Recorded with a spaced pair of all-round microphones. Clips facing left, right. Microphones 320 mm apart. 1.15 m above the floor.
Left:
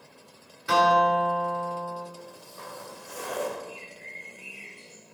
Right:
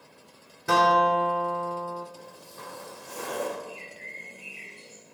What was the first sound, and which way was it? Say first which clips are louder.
A guitar: even; 60° right (ahead or behind).